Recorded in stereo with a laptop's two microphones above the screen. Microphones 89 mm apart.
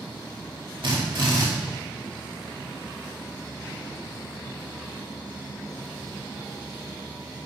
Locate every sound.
0.8 s a drill: 70° right (ahead or behind), 2.5 m